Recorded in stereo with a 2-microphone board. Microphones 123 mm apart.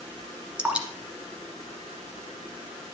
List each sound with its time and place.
0.6 s dripping: 10° right (ahead or behind), 1.3 m